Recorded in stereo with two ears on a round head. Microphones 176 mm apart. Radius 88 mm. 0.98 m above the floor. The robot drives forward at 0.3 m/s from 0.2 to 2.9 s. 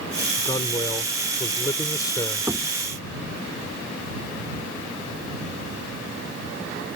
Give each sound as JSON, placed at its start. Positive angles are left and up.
{"t": 0.4, "sound": "a man speaking", "side_deg": 20}
{"t": 2.5, "sound": "knocking", "side_deg": -15}